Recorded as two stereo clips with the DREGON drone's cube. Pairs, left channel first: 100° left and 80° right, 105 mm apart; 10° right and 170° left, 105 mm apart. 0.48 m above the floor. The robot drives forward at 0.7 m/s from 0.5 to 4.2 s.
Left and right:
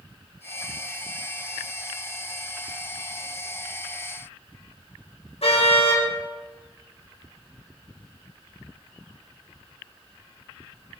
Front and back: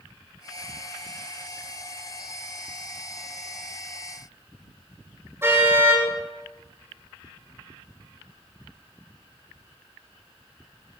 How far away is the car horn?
About 10 m.